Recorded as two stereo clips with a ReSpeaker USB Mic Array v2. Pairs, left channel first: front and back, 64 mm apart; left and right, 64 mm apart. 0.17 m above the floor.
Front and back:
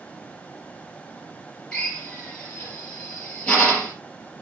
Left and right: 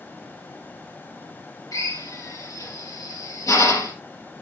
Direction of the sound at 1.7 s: 75° left.